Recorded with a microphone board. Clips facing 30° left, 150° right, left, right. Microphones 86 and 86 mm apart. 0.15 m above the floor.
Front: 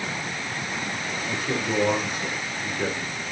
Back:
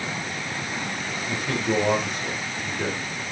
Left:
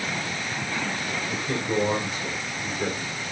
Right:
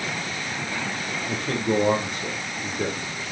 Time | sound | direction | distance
1.3 | a man speaking | 55° right | 4 m